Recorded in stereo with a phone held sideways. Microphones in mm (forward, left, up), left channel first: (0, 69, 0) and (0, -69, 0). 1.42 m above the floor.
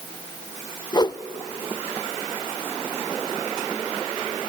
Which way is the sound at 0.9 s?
30° left (ahead or behind).